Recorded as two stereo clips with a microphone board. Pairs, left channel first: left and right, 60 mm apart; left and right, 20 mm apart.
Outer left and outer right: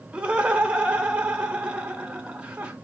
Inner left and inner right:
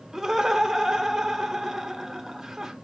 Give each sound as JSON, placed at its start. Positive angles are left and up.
{"t": 0.1, "sound": "laughter", "side_deg": -15, "distance_m": 0.9}